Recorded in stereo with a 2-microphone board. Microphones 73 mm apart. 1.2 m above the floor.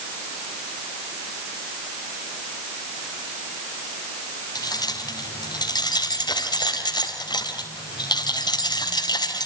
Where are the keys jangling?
65° left (ahead or behind), 5 m; by 9.5 s 75° left (ahead or behind), 4.5 m.